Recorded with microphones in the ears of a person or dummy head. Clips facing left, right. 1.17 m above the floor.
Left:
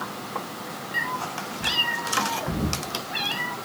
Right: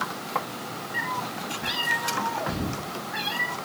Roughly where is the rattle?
I don't hear a rattle.